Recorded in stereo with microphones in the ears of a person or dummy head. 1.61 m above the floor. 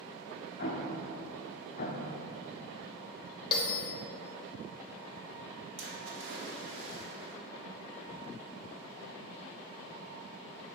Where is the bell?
25° left (ahead or behind), 1.0 m.